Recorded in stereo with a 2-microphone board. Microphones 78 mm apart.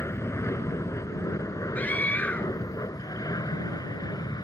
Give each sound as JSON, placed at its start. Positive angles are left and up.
{"t": 0.0, "sound": "an aircraft", "side_deg": 35}
{"t": 1.8, "sound": "a scream", "side_deg": 20}